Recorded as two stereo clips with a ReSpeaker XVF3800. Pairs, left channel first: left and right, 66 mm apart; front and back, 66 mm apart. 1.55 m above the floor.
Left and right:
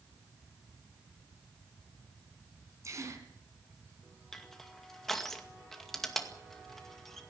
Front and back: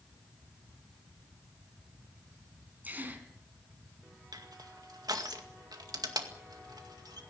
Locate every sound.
2.8 s a gasp: 120° right, 2.5 m
4.3 s crushing: 175° left, 2 m